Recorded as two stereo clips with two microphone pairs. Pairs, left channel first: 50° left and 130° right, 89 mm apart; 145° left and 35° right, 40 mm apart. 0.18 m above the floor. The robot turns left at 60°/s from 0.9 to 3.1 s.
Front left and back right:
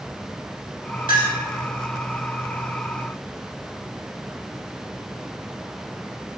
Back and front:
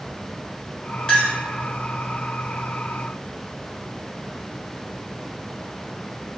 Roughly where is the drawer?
No drawer in this recording.